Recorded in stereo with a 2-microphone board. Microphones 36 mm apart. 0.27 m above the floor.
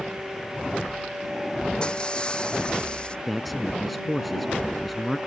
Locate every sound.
1.8 s breaking glass: 25° left (ahead or behind)
3.3 s a man speaking: centre (ahead or behind)